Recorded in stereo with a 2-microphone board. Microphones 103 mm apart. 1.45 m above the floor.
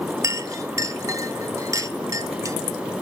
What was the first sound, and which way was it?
A clink, 30° right (ahead or behind).